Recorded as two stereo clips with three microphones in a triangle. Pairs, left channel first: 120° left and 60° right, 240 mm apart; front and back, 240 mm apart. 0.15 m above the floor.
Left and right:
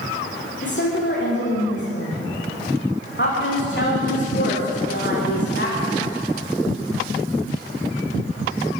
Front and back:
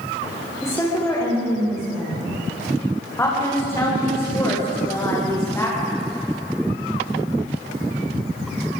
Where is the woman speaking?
80° left, 10 m.